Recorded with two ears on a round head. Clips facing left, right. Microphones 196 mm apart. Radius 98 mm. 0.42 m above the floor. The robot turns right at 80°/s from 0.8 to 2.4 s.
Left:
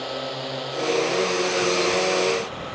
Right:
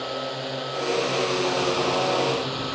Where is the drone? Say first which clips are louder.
Even; straight behind; by 2.8 s 50° right.